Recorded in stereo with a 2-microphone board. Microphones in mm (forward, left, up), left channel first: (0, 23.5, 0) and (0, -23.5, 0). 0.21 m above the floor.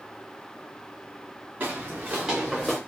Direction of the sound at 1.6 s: 45° right (ahead or behind).